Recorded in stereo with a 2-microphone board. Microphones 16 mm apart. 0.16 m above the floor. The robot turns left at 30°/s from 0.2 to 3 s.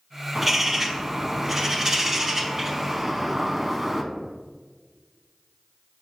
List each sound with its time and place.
0.3 s a bird: 15° right (ahead or behind), 0.6 m